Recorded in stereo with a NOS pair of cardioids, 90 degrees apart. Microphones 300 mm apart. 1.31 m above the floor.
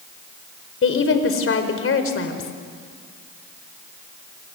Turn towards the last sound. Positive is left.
turn(degrees=45)